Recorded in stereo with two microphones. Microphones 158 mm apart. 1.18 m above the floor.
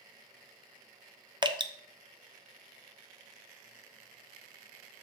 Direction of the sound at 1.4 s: 30° right (ahead or behind).